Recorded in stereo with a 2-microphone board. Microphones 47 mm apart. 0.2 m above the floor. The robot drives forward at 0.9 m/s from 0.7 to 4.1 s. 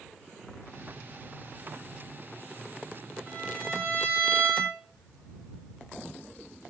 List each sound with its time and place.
3.3 s a violin: 35° right (ahead or behind), 3 m; by 4.8 s 45° right (ahead or behind), 2 m